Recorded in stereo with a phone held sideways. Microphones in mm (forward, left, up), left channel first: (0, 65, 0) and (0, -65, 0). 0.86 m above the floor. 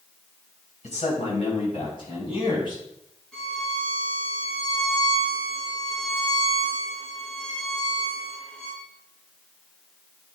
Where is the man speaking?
60° left (ahead or behind), 4 m; by 2.8 s 35° left (ahead or behind), 5.5 m.